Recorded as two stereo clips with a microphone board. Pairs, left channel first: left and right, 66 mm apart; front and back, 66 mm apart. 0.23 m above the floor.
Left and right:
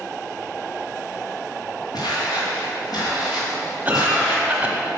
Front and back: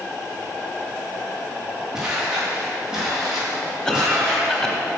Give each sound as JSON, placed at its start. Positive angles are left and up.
{"t": 1.9, "sound": "footsteps", "azimuth_deg": 100, "distance_m": 2.5}
{"t": 3.9, "sound": "a cough", "azimuth_deg": -70, "distance_m": 1.1}